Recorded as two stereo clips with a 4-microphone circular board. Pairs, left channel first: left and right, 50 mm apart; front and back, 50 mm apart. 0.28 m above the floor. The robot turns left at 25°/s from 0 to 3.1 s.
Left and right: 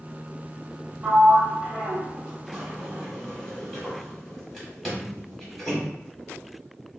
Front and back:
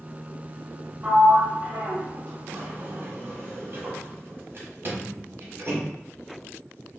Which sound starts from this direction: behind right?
A sliding door, at 1.0 s.